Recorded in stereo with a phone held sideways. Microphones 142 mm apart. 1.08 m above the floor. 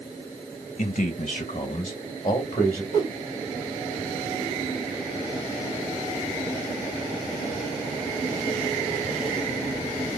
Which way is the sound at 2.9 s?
65° right (ahead or behind).